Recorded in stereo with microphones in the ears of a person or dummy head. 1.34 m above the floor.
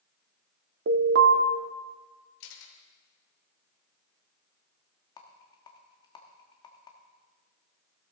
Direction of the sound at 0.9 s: 70° right (ahead or behind).